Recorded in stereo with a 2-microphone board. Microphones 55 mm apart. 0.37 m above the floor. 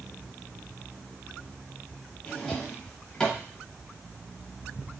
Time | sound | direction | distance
2.2 | a drawer | 15° left (ahead or behind) | 0.9 m